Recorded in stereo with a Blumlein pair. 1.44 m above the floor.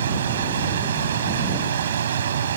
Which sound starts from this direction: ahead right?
A machine running, at 0.0 s.